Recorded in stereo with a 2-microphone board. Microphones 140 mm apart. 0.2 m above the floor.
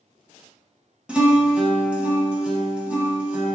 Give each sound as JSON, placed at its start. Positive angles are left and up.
{"t": 1.1, "sound": "a guitar", "side_deg": -10, "distance_m": 0.8}